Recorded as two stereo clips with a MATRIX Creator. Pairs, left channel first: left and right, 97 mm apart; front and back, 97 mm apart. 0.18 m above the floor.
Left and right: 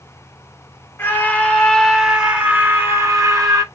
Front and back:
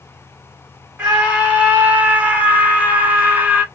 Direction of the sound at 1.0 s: 120° left.